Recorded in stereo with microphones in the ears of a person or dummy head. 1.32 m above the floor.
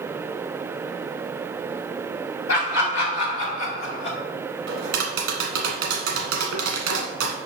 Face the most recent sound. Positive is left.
turn(degrees=-65)  # may be behind; listen again after turning